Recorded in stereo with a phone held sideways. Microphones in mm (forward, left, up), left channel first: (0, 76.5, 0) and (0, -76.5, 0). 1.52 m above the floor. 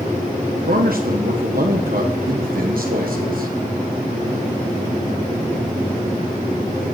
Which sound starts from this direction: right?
A man speaking, at 0.7 s.